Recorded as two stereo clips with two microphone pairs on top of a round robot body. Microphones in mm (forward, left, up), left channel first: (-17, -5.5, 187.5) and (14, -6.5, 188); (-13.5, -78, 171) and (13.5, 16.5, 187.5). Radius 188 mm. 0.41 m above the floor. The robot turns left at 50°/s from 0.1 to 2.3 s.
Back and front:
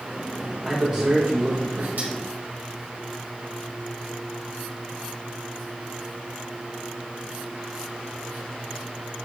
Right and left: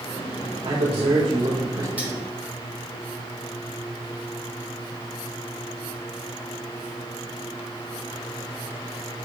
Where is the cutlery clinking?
5° right, 3.5 m; by 2.1 s 10° right, 3.5 m.